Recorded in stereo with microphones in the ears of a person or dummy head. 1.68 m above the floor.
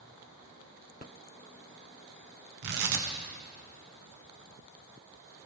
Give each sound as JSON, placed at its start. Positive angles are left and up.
{"t": 2.6, "sound": "tearing paper", "side_deg": -55, "distance_m": 1.3}